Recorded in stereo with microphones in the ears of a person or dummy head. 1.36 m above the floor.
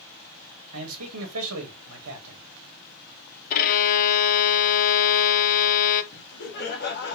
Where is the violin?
45° left (ahead or behind), 0.6 m.